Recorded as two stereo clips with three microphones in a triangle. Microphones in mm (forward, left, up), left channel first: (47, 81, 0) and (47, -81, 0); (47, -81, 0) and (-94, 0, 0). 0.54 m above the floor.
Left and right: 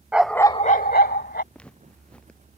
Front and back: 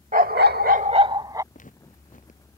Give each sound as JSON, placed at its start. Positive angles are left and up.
{"t": 0.1, "sound": "a dog barking", "azimuth_deg": -170}
{"t": 1.5, "sound": "footsteps", "azimuth_deg": 5}